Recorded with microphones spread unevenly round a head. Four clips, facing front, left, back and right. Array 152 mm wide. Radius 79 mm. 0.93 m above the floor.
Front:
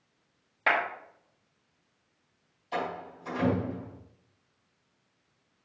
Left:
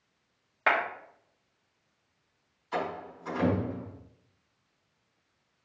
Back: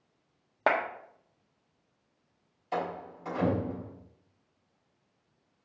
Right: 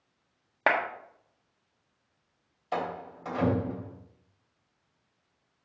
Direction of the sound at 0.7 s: 140° right.